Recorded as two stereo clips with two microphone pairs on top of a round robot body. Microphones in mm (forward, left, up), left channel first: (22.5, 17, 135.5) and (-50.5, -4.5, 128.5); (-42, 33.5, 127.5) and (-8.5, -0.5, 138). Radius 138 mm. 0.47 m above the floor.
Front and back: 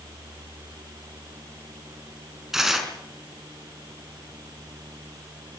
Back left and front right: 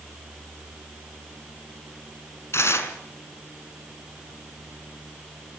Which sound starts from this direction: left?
Tearing paper, at 2.5 s.